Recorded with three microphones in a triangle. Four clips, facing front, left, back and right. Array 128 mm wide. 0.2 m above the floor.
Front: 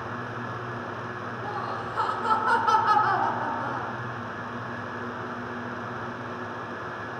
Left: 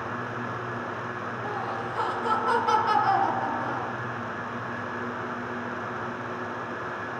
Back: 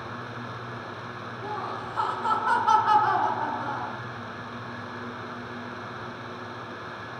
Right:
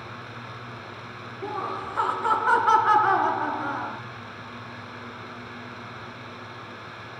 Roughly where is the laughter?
Right.